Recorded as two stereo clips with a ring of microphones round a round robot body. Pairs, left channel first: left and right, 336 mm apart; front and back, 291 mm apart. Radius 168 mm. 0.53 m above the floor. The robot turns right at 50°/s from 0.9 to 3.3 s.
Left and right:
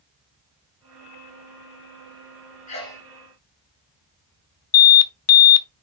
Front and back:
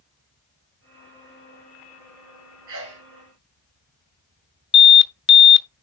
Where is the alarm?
50° left, 0.9 m.